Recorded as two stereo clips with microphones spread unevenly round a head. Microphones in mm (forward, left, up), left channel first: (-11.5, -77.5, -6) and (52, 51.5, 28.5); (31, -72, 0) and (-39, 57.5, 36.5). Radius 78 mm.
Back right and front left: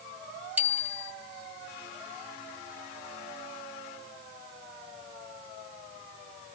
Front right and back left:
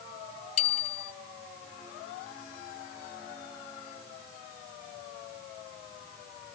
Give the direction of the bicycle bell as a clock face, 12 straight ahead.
12 o'clock.